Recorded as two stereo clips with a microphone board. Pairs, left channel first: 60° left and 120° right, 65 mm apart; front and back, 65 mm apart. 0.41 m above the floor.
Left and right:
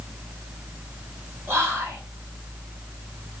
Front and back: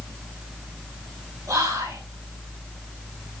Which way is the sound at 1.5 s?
170° right.